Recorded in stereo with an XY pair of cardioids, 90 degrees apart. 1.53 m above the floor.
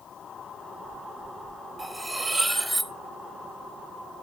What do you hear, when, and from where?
1.8 s cutlery clinking: 10° right, 2.5 m